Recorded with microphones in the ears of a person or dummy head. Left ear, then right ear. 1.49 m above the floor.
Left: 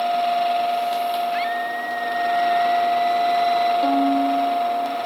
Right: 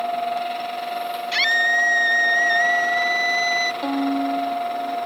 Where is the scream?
75° right (ahead or behind); by 3.7 s 70° right (ahead or behind).